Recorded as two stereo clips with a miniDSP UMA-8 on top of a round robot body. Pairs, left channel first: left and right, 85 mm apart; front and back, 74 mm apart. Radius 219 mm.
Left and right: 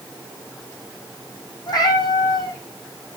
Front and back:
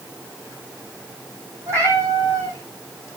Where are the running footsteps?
I don't hear running footsteps.